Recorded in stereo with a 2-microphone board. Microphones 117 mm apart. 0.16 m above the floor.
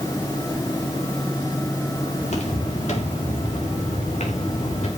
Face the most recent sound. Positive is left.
turn(degrees=90)